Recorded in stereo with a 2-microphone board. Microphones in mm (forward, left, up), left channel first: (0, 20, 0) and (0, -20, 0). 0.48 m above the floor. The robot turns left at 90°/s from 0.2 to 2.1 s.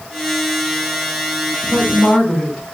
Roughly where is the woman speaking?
Ahead left.